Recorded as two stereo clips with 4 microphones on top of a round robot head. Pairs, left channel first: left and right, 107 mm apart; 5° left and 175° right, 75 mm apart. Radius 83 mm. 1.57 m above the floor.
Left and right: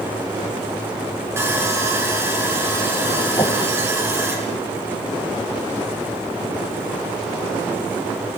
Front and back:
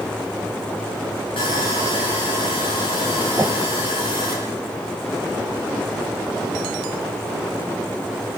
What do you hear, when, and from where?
1.4 s sawing: 25° right, 6.5 m
3.4 s a whoosh: 130° left, 0.9 m